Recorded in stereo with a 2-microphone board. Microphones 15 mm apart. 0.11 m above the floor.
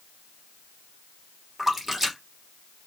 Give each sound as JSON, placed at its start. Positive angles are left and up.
{"t": 1.6, "sound": "a splash", "side_deg": -15, "distance_m": 2.0}